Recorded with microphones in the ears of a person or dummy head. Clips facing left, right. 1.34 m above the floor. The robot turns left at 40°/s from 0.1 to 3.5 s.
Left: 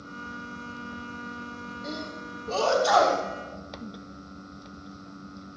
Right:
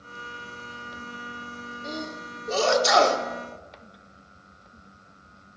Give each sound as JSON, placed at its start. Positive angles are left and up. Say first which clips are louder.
{"t": 1.8, "sound": "a sneeze", "louder": "right 2 dB", "side_deg": 10, "distance_m": 3.5}